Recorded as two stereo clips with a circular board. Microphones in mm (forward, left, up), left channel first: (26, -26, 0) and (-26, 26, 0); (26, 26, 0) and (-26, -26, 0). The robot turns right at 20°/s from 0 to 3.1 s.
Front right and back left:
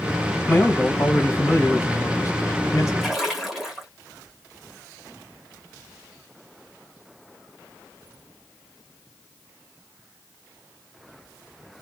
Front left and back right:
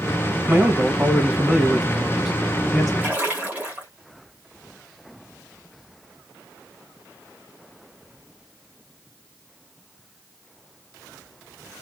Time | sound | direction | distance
0.5 | a man speaking | 80° right | 1.6 m
3.0 | a splash | 145° right | 1.2 m